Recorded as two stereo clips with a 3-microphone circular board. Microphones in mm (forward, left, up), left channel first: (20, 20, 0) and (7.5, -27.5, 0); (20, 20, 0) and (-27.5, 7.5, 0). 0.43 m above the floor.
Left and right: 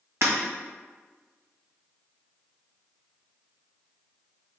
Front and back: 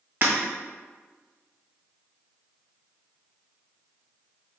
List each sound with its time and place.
0.2 s breaking glass: 125° right, 1.8 m